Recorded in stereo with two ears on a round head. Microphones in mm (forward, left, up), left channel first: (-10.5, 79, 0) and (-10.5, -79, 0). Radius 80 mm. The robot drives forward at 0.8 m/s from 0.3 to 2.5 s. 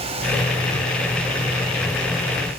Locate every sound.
Only background noise.